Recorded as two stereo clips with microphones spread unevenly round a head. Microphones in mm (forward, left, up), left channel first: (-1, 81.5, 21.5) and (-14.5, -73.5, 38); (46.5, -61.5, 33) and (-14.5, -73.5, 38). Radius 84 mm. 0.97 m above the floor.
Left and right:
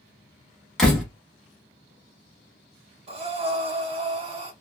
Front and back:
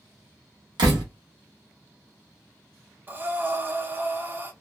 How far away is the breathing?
About 0.9 m.